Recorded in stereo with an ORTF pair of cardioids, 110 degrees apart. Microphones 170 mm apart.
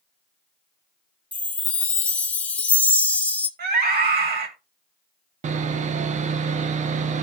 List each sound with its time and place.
1.3 s a chime: 10° left, 1.4 m
3.6 s a scream: 65° right, 4 m
5.4 s sawing: 45° right, 1.0 m